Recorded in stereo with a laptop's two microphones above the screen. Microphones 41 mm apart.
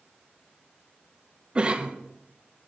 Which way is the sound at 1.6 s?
25° right (ahead or behind).